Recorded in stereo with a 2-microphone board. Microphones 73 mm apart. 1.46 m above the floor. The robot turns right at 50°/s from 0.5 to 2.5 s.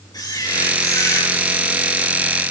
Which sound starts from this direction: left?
A camera shutter, at 0.1 s.